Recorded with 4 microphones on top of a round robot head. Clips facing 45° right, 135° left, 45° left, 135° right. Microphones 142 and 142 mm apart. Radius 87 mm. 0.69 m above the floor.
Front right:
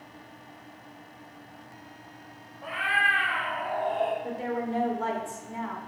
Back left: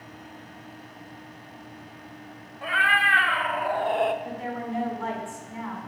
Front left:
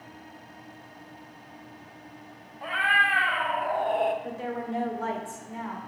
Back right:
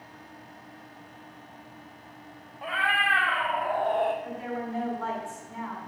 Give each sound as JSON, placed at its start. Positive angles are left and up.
{"t": 2.6, "sound": "a cat meowing", "azimuth_deg": 140, "distance_m": 1.6}
{"t": 4.2, "sound": "a woman speaking", "azimuth_deg": -5, "distance_m": 1.8}